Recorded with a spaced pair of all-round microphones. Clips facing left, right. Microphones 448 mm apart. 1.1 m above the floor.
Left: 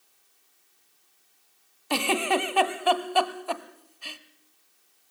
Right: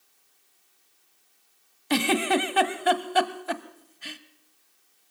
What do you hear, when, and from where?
1.9 s a giggle: 35° right (ahead or behind), 1.2 m